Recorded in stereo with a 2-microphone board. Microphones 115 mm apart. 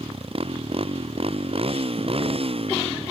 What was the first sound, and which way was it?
A motorcycle, 55° right (ahead or behind).